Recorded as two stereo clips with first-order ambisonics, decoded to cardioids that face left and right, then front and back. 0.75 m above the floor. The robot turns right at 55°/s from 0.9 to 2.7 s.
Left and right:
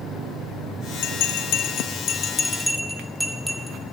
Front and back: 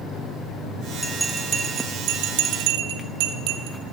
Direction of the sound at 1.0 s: 90° left.